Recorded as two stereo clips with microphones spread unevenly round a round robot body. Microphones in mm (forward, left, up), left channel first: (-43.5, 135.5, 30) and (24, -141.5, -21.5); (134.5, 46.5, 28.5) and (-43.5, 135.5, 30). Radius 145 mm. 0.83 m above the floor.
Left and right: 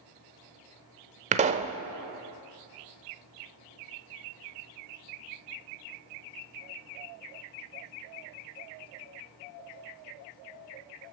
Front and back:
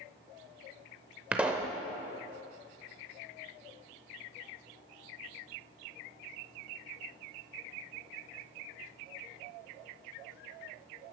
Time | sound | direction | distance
1.3 | a pop | 135° right | 0.5 m